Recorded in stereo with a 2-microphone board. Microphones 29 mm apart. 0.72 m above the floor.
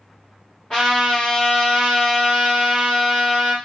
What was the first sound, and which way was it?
A trumpet, 25° left (ahead or behind).